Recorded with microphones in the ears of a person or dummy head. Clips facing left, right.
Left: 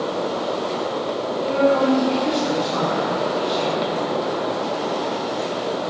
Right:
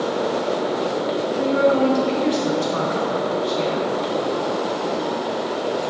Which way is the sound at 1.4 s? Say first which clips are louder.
Even; 40° right (ahead or behind).